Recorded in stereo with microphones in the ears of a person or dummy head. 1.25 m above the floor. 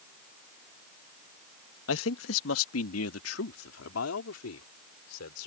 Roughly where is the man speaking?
Left.